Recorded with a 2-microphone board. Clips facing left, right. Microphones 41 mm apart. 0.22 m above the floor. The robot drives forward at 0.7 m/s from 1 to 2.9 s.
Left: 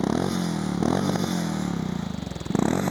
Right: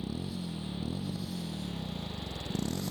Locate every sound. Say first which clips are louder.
0.0 s a motorcycle: left 13 dB; 75° left (ahead or behind); by 2.9 s 55° left (ahead or behind)